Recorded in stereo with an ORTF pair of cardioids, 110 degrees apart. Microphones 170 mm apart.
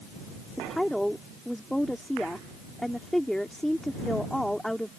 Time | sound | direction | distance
0.6 | a woman speaking | straight ahead | ?